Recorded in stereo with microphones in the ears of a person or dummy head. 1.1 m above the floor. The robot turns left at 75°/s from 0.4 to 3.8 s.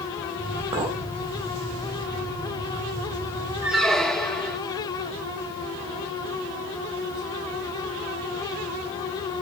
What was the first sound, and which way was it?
A clink, 35° right (ahead or behind).